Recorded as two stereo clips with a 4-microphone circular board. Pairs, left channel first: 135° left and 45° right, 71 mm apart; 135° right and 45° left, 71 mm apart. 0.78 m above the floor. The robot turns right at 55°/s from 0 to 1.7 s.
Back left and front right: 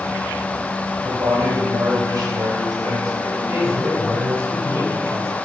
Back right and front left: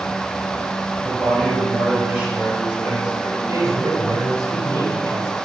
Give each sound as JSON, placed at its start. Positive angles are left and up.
{"t": 1.0, "sound": "a man speaking", "azimuth_deg": -65, "distance_m": 4.5}
{"t": 3.2, "sound": "a man speaking", "azimuth_deg": 5, "distance_m": 3.5}